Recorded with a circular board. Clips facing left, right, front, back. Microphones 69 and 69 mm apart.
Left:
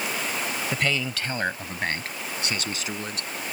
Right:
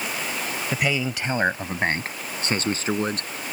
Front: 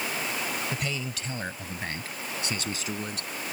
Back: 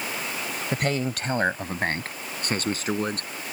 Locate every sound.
0.7 s a man speaking: 170° right; by 3.3 s 140° right